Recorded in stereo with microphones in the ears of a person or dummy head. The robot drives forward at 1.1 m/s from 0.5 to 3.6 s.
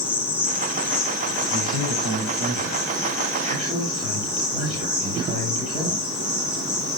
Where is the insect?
5° right (ahead or behind), 2.5 m; by 7.0 s centre (ahead or behind), 6 m.